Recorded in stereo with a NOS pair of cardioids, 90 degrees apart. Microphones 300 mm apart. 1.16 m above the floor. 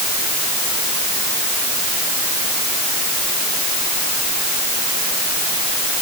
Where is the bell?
No bell in this recording.